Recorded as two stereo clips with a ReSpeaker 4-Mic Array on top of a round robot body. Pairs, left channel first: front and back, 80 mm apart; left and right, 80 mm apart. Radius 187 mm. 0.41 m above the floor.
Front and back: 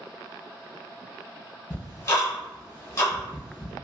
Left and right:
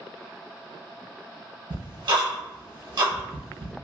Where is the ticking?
55° right, 1.1 m.